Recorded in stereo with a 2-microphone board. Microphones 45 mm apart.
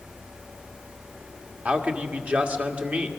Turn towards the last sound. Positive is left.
turn(degrees=-35)  # may be behind; listen again after turning